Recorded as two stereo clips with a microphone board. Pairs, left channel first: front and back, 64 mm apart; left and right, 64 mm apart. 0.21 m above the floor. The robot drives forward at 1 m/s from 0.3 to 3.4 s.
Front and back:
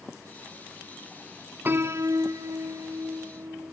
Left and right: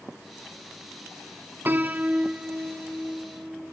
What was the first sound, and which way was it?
A piano, 135° right.